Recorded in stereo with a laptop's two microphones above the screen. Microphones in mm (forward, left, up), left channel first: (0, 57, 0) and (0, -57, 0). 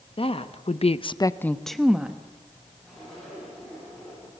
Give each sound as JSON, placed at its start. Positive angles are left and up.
{"t": 0.2, "sound": "a woman speaking", "side_deg": 55, "distance_m": 1.2}
{"t": 2.8, "sound": "a zipper", "side_deg": 5, "distance_m": 9.5}